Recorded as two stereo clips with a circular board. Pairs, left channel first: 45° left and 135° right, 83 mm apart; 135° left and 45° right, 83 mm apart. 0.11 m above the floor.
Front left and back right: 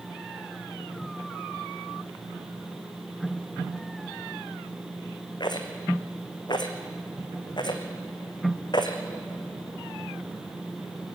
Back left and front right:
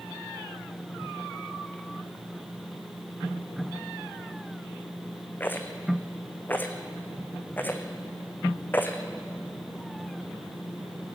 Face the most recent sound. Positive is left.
turn(degrees=70)